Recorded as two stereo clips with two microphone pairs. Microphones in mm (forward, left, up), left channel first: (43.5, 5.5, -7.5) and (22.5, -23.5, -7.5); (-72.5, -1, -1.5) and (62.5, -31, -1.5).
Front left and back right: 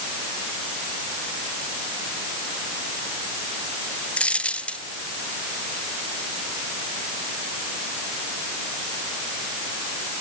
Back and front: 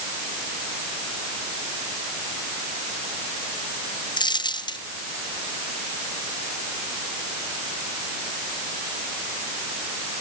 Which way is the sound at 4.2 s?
110° left.